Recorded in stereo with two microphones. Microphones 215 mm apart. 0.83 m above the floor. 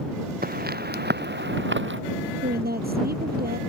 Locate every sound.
0.4 s footsteps: 45° right (ahead or behind); by 2.0 s 65° right (ahead or behind)
2.4 s a woman speaking: 45° right (ahead or behind)